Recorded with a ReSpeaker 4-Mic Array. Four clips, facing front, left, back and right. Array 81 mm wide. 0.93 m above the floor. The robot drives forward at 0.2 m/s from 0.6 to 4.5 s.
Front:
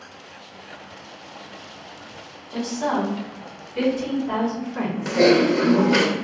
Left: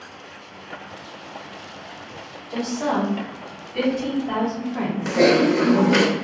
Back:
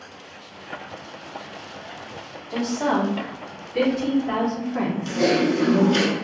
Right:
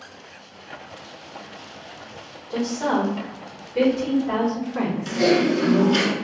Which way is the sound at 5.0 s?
55° left.